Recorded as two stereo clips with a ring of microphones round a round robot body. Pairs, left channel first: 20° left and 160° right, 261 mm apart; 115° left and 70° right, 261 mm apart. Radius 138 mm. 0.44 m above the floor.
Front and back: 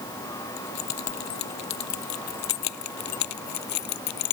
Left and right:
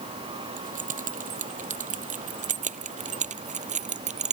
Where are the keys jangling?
5° right; by 4.3 s straight ahead.